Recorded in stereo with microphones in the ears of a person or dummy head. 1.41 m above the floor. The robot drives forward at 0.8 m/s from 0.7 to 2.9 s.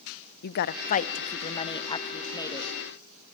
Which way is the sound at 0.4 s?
60° left (ahead or behind).